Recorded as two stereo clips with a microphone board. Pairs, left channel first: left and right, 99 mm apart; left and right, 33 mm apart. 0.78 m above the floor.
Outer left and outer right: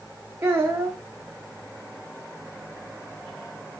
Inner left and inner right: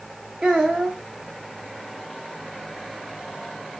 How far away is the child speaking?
About 0.6 m.